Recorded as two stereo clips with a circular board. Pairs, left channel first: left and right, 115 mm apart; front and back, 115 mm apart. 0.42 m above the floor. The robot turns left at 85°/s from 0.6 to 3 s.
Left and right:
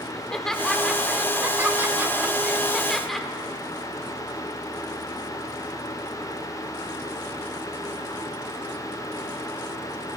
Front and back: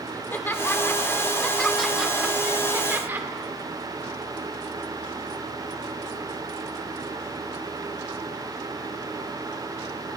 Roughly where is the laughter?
Ahead.